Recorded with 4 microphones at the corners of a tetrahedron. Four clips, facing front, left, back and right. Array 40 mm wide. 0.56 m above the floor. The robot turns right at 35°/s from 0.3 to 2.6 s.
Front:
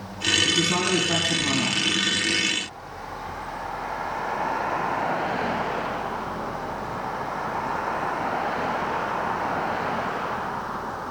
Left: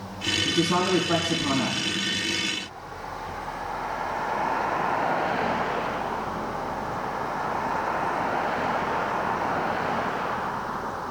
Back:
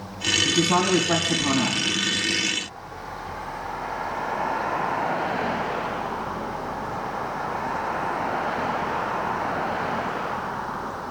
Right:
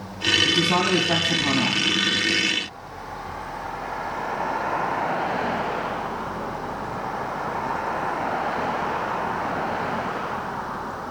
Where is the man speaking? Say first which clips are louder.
Right 3 dB, back 2 dB; 150° right, 4 m; by 1.8 s 100° right, 4 m.